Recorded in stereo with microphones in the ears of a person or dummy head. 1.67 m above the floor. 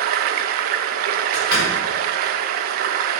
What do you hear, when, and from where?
0.0 s running water: 55° right (ahead or behind), 0.9 m
1.3 s a door slam: 60° left (ahead or behind), 5.5 m